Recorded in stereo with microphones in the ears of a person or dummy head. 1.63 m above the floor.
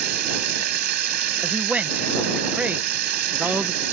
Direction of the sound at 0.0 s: 55° right (ahead or behind).